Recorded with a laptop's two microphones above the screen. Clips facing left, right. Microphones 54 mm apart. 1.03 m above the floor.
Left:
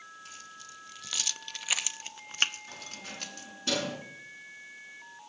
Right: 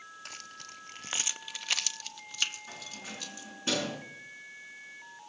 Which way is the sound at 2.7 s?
20° right (ahead or behind).